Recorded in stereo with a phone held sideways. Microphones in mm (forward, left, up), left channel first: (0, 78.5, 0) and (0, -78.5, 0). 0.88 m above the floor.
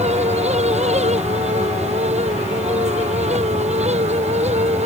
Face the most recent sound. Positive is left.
turn(degrees=-45)  # may be behind; listen again after turning